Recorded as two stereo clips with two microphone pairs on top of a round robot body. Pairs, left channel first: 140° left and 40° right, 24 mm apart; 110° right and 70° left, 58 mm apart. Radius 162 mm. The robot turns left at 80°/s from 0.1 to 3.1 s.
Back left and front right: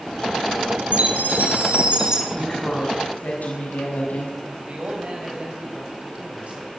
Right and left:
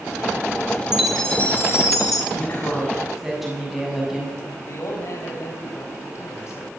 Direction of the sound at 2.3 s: 140° right.